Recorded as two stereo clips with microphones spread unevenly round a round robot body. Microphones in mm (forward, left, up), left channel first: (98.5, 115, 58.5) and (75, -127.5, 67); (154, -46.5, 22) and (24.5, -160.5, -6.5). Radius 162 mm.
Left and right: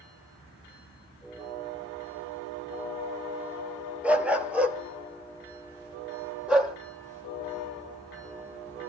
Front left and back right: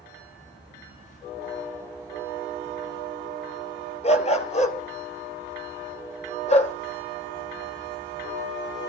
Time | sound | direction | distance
4.0 | a dog barking | 10° right | 2.5 m